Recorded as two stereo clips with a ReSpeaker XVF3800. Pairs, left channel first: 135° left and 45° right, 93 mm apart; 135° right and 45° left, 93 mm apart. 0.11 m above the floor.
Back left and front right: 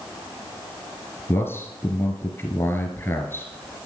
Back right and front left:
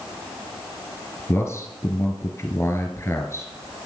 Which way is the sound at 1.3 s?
175° right.